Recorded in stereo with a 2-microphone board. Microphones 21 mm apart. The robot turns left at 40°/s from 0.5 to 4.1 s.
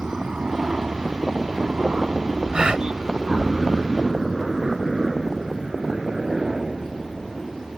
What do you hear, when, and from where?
0.0 s a helicopter: 60° right (ahead or behind); by 7.8 s 25° right (ahead or behind)
2.5 s a gasp: 45° right (ahead or behind)